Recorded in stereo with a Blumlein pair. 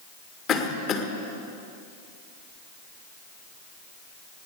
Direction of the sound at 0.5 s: 30° left.